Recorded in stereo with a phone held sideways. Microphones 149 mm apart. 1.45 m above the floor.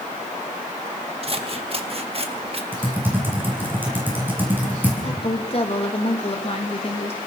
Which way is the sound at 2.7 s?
15° right (ahead or behind).